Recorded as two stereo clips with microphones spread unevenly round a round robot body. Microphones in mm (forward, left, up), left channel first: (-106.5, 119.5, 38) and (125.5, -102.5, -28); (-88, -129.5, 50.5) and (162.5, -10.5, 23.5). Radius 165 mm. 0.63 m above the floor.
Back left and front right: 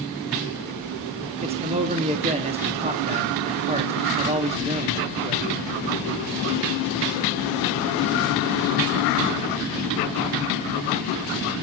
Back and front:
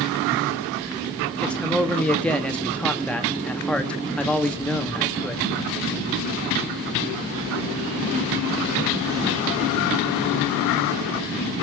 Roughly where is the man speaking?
Ahead right.